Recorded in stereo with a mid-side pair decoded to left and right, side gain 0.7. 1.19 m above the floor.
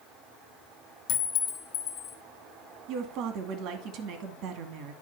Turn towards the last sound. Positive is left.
turn(degrees=-60)